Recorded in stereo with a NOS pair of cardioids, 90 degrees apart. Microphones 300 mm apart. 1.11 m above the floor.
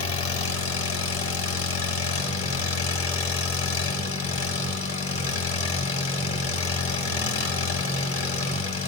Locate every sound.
0.0 s an engine running: 50° left, 3.5 m